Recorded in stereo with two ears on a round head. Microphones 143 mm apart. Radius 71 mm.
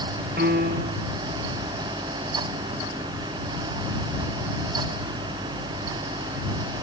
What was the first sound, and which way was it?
A piano, 70° right (ahead or behind).